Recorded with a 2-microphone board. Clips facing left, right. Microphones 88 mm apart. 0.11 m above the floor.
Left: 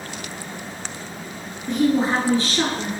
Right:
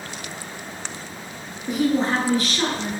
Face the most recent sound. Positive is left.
turn(degrees=45)  # may be behind; listen again after turning